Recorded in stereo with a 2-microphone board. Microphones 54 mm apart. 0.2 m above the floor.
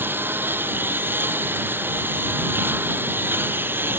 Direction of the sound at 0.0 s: 35° right (ahead or behind).